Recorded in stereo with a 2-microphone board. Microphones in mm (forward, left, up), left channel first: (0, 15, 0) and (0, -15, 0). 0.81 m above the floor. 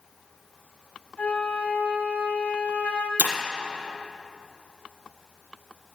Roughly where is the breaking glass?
Right.